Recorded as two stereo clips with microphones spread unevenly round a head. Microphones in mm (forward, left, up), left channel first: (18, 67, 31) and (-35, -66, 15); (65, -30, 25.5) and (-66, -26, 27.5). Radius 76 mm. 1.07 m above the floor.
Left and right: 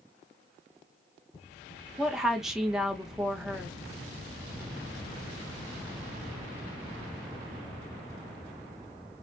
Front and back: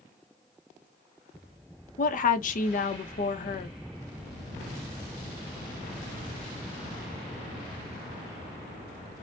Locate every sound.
2.0 s a woman speaking: 25° right, 0.6 m